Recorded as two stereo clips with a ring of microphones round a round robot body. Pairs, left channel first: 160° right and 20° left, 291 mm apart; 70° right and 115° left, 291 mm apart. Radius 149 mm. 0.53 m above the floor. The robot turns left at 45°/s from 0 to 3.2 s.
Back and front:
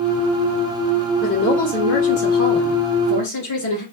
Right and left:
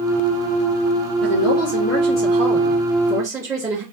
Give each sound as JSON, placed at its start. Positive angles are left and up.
{"t": 1.2, "sound": "a woman speaking", "azimuth_deg": -80, "distance_m": 2.0}